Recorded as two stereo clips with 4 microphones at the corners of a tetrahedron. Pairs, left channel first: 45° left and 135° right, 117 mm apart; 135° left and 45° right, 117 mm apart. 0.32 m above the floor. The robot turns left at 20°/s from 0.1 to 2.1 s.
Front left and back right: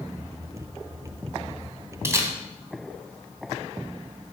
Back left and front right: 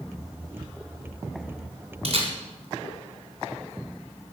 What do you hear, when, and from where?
2.0 s a camera shutter: 70° right, 3 m